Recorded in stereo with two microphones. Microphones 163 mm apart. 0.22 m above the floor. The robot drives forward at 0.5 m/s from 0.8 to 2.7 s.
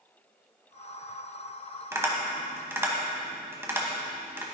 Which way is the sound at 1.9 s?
20° right (ahead or behind).